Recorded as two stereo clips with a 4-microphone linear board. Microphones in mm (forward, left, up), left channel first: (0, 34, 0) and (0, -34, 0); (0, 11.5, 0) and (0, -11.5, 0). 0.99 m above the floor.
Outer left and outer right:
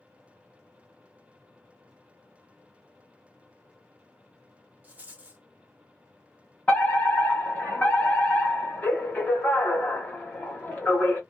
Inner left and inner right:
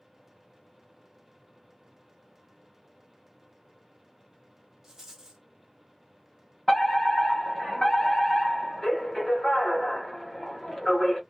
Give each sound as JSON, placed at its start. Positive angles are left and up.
{"t": 4.8, "sound": "a rattle", "side_deg": -25, "distance_m": 0.8}
{"t": 6.7, "sound": "a fire alarm", "side_deg": 20, "distance_m": 1.3}